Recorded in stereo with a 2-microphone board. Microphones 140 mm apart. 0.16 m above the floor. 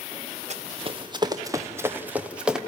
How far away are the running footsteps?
About 1.6 m.